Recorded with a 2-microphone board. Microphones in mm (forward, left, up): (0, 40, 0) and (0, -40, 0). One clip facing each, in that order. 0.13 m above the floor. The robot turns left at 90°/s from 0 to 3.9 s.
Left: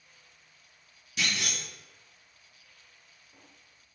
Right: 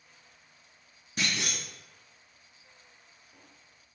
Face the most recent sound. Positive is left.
turn(degrees=40)